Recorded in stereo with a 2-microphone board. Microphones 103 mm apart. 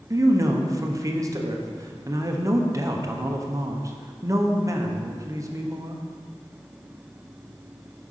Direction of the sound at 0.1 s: 30° right (ahead or behind).